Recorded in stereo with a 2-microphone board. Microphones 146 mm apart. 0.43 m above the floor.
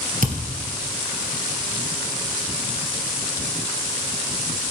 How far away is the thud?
About 2 m.